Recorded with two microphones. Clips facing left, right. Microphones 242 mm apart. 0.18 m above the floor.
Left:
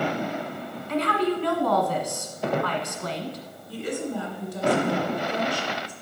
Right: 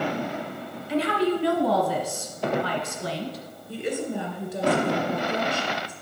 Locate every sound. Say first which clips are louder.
0.9 s a woman speaking: right 1 dB; 5° right (ahead or behind), 1.3 m
3.7 s a woman speaking: right 1 dB; 20° right (ahead or behind), 2 m